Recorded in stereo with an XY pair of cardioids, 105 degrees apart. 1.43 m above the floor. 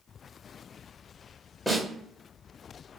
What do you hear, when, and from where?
1.7 s a snare drum: 15° left, 1.1 m